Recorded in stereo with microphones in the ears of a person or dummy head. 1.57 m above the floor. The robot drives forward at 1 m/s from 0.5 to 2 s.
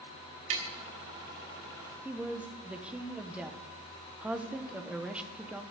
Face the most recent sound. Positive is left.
turn(degrees=-5)  # may be behind; listen again after turning